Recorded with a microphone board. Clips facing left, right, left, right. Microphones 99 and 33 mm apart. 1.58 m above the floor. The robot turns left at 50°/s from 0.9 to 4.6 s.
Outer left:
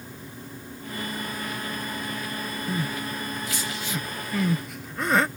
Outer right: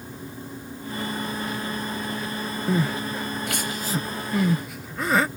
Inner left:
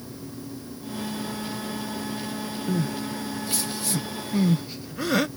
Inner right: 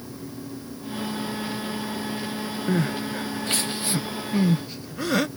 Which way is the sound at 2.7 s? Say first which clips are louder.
Outer right 7 dB, inner right 3 dB; 75° right (ahead or behind).